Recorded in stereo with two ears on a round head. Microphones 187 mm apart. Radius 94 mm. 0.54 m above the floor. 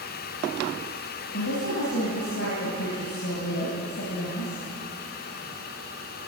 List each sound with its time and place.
1.3 s a woman speaking: 65° left (ahead or behind), 4 m